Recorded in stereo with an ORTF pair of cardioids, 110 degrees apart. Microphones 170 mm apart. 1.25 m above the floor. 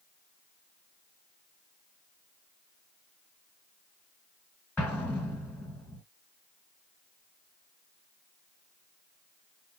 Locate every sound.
4.8 s an explosion: 10° left, 1.6 m